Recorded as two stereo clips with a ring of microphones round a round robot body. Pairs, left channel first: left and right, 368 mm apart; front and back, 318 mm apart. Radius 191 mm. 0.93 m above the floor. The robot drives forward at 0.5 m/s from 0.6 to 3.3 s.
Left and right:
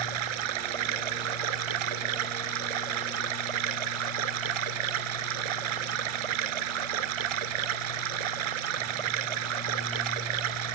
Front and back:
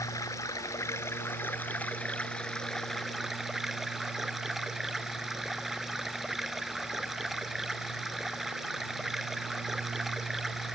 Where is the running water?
80° right; by 10.8 s 90° right.